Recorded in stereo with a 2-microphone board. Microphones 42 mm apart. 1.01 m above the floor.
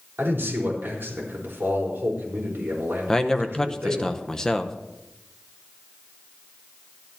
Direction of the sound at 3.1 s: 15° left (ahead or behind).